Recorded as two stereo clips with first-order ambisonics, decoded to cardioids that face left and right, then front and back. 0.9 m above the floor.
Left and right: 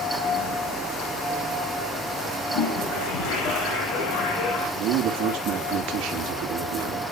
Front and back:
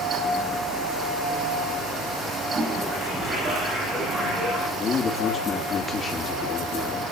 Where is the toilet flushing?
110° left, 7.5 m.